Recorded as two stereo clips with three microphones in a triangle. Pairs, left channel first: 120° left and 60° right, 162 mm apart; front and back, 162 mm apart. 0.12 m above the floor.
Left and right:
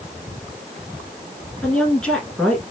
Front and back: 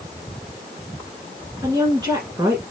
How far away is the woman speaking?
About 1.5 m.